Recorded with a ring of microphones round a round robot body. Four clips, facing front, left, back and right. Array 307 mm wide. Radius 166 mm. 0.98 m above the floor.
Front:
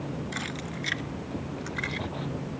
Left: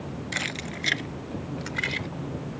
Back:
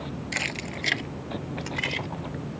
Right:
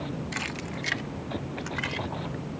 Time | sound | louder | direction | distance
0.3 | keys jangling | left 1 dB, back 1 dB | 145° left | ?